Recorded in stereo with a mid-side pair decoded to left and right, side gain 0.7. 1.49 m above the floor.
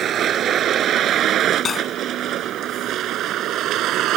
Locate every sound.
0.0 s a vehicle: 45° right; by 4.2 s 55° right
1.6 s cutlery clinking: 30° left